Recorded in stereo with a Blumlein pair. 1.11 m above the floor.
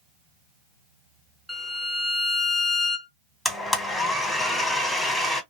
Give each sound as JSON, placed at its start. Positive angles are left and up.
{"t": 1.5, "sound": "a violin", "azimuth_deg": 0, "distance_m": 0.8}
{"t": 3.5, "sound": "a blender", "azimuth_deg": 5, "distance_m": 1.0}